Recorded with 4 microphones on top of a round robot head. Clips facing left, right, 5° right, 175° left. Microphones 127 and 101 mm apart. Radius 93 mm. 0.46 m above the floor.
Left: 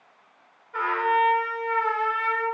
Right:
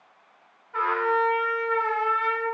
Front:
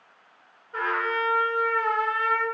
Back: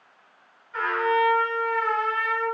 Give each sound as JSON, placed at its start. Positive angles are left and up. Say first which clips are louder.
{"t": 0.7, "sound": "a trumpet", "louder": "left 1 dB, back 4 dB", "azimuth_deg": 10, "distance_m": 1.7}